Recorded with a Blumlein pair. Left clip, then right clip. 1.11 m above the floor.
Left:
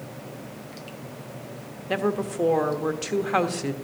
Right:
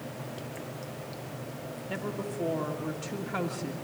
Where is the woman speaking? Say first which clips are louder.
Left 11 dB; 40° left, 1.3 m.